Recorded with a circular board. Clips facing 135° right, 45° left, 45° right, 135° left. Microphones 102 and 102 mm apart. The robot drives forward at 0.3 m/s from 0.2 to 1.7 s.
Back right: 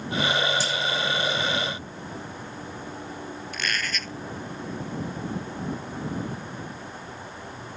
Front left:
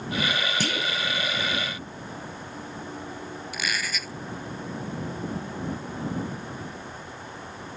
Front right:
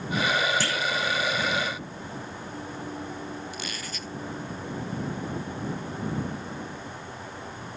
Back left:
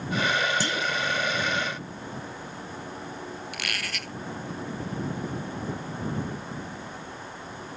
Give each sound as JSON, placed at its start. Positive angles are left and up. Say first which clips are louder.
{"t": 0.6, "sound": "a clunk", "louder": "back right 1 dB, even", "azimuth_deg": 65}
{"t": 3.5, "sound": "a squeak", "louder": "back right 1 dB, back left 1 dB", "azimuth_deg": 130}